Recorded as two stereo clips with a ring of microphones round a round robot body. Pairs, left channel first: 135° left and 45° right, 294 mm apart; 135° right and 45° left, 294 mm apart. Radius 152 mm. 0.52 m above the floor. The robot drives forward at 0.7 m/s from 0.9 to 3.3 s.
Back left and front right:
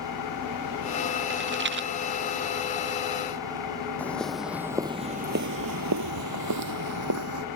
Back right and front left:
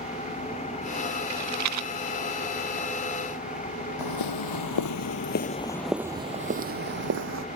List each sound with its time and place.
0.0 s an engine running: 155° left
1.3 s a rattle: 10° left
4.0 s footsteps: 140° right; by 7.5 s 5° right